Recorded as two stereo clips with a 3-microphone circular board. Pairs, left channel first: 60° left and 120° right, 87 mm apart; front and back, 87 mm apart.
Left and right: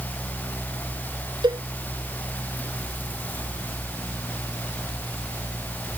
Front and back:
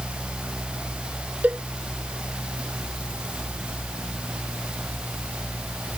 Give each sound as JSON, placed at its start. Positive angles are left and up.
{"t": 1.4, "sound": "a cowbell", "azimuth_deg": -110}